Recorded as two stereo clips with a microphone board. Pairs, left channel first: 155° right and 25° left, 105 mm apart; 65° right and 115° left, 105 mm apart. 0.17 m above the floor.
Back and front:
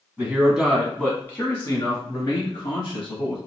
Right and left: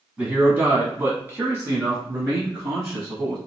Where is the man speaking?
60° left, 1.3 m; by 3.4 s 175° left, 2.5 m.